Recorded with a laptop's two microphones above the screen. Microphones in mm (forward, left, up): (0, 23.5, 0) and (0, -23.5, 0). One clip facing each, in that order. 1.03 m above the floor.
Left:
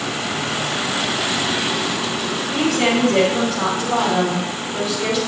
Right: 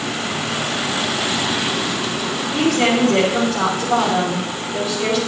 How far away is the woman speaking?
About 4 m.